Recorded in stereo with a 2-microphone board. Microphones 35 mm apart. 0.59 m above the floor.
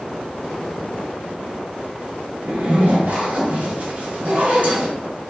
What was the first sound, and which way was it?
A zipper, 50° right (ahead or behind).